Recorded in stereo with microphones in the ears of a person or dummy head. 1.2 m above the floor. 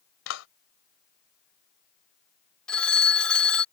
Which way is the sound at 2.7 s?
5° left (ahead or behind).